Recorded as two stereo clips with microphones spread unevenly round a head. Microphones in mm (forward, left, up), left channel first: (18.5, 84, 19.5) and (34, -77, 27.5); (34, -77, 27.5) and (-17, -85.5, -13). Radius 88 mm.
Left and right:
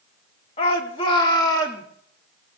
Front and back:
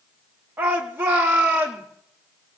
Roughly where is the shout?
Behind left.